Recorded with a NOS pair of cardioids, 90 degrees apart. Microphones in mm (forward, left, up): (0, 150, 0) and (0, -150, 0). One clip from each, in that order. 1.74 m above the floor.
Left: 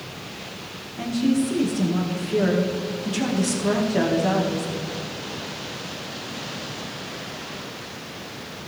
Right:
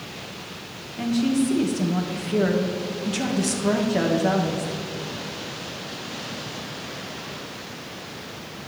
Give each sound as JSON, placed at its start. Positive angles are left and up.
{"t": 1.0, "sound": "a woman speaking", "azimuth_deg": -10, "distance_m": 2.0}